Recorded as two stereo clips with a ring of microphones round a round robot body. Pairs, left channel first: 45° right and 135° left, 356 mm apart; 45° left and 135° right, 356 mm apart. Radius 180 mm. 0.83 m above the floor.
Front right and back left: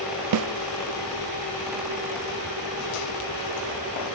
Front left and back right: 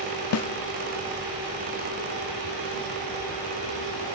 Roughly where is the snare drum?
Left.